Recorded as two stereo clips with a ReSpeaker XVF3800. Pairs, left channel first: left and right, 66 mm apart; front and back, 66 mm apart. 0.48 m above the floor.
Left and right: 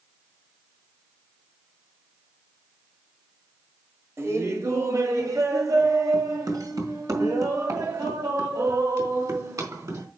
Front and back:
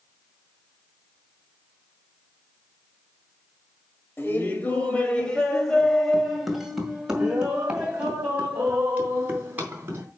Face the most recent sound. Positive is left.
turn(degrees=-120)